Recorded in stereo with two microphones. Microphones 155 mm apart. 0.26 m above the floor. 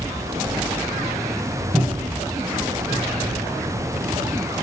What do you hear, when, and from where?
1.7 s a cupboard door: 10° right (ahead or behind), 1.8 m